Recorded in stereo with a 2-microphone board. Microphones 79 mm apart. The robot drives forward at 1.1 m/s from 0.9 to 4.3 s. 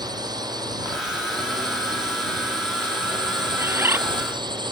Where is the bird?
30° right (ahead or behind).